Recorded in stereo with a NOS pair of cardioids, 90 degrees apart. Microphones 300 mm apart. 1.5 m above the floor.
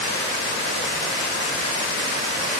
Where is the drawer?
No drawer in this recording.